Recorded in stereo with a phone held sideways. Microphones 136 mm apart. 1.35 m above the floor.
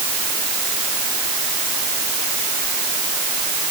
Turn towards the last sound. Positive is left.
No sound to turn to.